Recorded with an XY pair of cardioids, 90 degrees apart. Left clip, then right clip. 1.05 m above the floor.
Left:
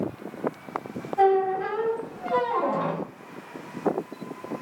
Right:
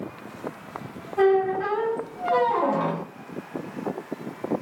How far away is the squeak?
About 1.0 m.